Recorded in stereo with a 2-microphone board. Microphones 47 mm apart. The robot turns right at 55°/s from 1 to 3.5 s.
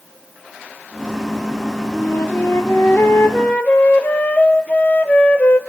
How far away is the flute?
About 1.0 m.